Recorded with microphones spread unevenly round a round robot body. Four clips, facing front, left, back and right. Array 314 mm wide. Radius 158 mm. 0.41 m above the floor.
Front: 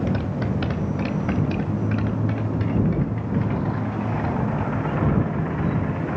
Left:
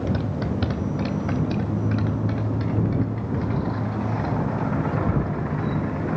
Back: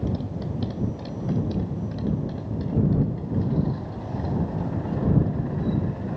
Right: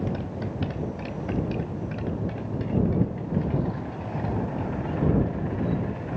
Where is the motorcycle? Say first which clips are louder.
Left 4 dB, front 5 dB; 35° left; by 6.2 s 40° left.